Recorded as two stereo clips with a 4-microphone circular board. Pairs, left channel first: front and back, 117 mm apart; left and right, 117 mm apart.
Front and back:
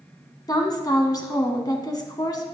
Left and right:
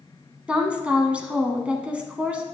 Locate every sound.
0.5 s a woman speaking: 20° right, 1.2 m